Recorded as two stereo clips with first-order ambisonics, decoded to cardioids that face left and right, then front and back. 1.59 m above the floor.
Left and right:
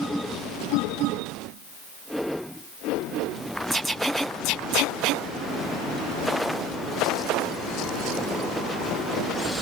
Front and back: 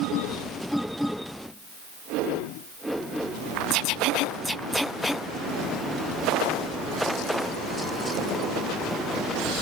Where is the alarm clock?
No alarm clock in this recording.